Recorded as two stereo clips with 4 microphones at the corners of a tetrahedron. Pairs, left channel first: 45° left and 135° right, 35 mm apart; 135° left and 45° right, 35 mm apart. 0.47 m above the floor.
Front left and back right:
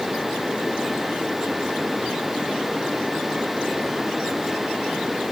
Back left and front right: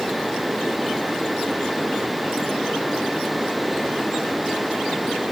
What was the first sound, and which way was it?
Only background noise.